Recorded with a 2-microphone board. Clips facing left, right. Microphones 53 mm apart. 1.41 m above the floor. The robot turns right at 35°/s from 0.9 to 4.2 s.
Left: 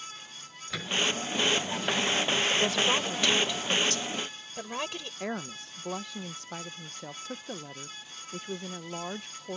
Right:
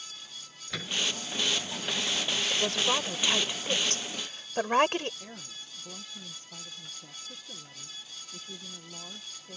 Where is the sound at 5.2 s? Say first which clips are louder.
Left 11 dB; 75° left (ahead or behind).